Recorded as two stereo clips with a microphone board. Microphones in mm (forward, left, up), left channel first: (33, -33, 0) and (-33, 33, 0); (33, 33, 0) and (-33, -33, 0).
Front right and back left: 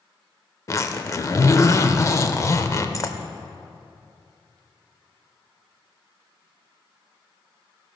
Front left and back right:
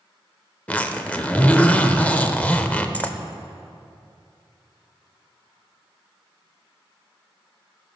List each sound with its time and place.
0.7 s a zipper: 20° right, 0.5 m